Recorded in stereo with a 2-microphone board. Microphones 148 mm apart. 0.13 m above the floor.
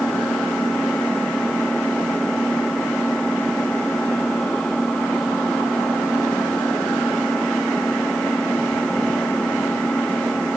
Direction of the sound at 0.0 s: 5° left (ahead or behind).